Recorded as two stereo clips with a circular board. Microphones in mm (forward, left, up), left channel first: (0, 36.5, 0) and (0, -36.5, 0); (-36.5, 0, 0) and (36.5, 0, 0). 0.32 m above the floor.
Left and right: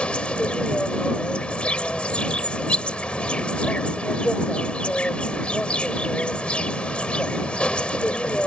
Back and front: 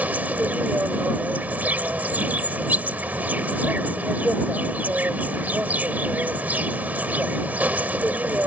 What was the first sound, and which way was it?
An insect, 35° left.